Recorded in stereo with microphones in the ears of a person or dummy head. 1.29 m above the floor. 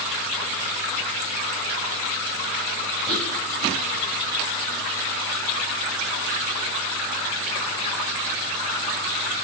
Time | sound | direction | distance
3.1 | whispering | 25° right (ahead or behind) | 5.5 m